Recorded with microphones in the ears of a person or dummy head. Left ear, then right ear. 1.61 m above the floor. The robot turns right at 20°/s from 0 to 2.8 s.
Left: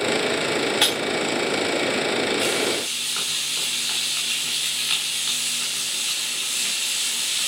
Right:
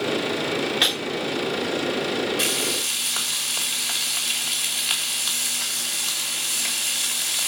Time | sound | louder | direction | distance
0.8 | breaking glass | right 1 dB | 35° left (ahead or behind) | 3.5 m
2.4 | frying | left 1 dB | 25° right (ahead or behind) | 2.5 m